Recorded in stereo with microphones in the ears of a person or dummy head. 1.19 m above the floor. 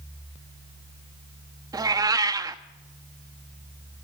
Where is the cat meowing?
15° right (ahead or behind), 0.8 m.